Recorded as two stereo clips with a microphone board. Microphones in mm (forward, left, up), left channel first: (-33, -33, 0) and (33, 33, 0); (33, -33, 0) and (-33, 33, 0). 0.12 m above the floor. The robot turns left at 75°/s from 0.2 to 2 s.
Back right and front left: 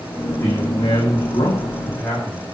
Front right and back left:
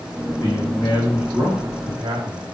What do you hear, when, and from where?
0.4 s a man speaking: 75° right, 8.5 m; by 2.4 s 165° left, 8.5 m